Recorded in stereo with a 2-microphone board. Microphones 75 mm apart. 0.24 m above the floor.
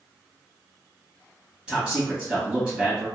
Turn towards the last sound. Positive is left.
turn(degrees=-15)  # may be behind; listen again after turning